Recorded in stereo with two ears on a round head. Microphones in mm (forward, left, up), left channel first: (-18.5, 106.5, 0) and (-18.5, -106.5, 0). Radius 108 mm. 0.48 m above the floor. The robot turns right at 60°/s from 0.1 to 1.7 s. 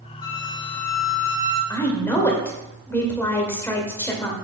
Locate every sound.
0.2 s a flute: 20° left, 1.6 m; by 1.6 s 105° left, 1.6 m
1.7 s a woman speaking: 10° left (ahead or behind), 2 m